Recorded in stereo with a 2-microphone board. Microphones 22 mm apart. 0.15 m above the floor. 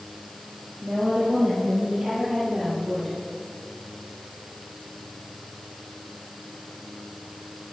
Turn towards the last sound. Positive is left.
turn(degrees=-5)  # may be behind; listen again after turning